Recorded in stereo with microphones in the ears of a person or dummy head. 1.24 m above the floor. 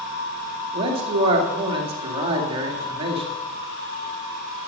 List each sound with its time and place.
0.7 s a man speaking: 30° right (ahead or behind), 2 m